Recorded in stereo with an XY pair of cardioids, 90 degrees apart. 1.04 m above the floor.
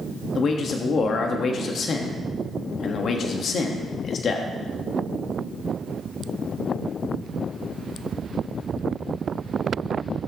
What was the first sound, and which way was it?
A man speaking, 60° left.